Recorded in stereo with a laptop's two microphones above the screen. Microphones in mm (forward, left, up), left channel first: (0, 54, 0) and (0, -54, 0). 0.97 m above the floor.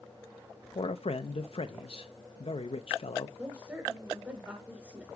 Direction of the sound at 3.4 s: 10° right (ahead or behind).